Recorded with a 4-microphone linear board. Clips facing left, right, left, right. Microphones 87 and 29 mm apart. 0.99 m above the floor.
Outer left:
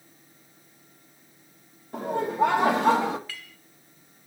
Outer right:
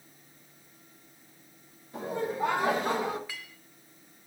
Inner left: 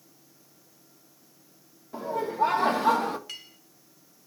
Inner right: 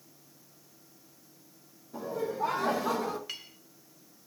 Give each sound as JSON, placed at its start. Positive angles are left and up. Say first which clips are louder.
{"t": 1.9, "sound": "laughter", "louder": "outer left 7 dB, inner left 6 dB", "side_deg": 60, "distance_m": 2.0}
{"t": 3.3, "sound": "a clink", "louder": "outer left 1 dB, even", "side_deg": -15, "distance_m": 1.4}